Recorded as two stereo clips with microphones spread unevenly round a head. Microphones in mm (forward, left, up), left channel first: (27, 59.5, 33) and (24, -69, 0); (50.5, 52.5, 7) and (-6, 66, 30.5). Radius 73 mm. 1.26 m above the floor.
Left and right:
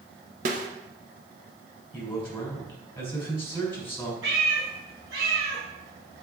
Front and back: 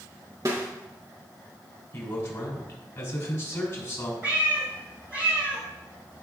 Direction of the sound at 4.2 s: 100° right.